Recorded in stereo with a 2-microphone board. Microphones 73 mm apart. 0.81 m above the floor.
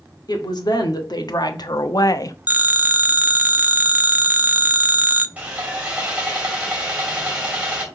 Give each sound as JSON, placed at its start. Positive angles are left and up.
{"t": 0.3, "sound": "a woman speaking", "side_deg": 70, "distance_m": 1.9}
{"t": 2.5, "sound": "a phone ringing", "side_deg": -20, "distance_m": 0.5}
{"t": 5.4, "sound": "sawing", "side_deg": -20, "distance_m": 2.5}